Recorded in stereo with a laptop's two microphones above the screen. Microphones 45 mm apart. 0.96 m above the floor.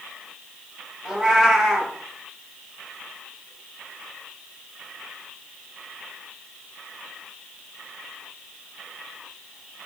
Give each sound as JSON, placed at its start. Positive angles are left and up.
{"t": 1.1, "sound": "a cat meowing", "side_deg": -10, "distance_m": 0.5}